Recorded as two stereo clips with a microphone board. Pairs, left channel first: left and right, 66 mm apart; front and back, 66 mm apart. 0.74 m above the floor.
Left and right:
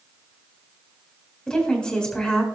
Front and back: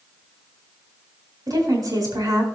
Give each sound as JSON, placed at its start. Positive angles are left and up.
{"t": 1.5, "sound": "a woman speaking", "azimuth_deg": 165, "distance_m": 3.5}